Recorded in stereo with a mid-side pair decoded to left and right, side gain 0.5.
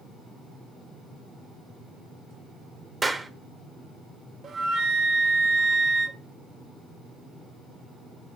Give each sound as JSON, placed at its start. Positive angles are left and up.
{"t": 3.0, "sound": "a clap", "azimuth_deg": -20, "distance_m": 1.0}
{"t": 4.4, "sound": "a flute", "azimuth_deg": -50, "distance_m": 0.8}